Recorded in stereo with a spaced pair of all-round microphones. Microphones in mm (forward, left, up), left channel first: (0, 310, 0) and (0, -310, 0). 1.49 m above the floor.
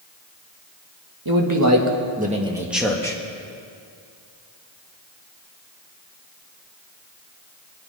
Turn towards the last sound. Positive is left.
turn(degrees=5)  # may be behind; listen again after turning